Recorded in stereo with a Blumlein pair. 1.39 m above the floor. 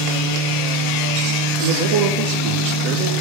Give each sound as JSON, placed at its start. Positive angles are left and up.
{"t": 0.0, "sound": "a fan", "azimuth_deg": -30, "distance_m": 3.0}
{"t": 1.6, "sound": "a man speaking", "azimuth_deg": -50, "distance_m": 2.5}